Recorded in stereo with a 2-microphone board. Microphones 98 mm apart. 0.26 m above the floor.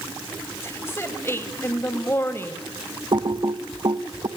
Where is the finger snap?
I don't hear a finger snap.